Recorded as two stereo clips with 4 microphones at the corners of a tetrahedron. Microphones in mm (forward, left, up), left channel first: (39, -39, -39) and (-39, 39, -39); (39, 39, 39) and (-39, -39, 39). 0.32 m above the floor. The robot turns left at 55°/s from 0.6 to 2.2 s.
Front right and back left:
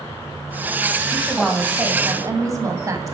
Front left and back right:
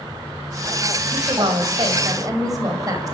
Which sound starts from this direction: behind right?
A woman speaking, at 1.1 s.